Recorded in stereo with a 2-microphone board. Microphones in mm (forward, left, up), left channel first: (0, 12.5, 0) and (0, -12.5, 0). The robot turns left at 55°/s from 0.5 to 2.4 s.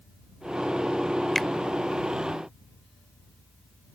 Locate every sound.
1.4 s a finger snap: 15° left (ahead or behind)